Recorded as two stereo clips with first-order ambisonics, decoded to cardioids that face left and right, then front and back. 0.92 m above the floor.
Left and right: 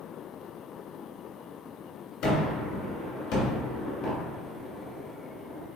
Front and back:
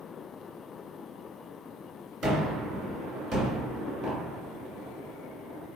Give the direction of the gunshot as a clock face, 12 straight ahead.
8 o'clock.